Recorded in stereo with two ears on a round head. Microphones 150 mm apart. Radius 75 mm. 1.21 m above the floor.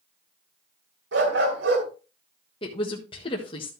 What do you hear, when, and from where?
1.1 s a dog barking: 75° right (ahead or behind), 3 m
2.6 s a woman speaking: 30° left (ahead or behind), 1.3 m